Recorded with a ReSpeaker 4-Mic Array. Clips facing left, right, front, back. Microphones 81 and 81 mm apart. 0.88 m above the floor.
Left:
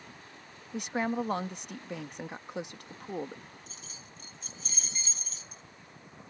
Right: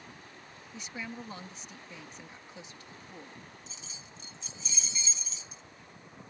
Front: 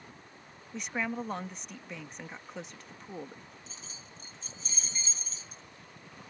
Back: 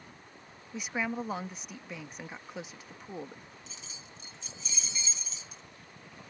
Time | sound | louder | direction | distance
0.7 | a woman speaking | left 11 dB, back 1 dB | 95° left | ?
3.7 | keys jangling | even, even | 50° left | ?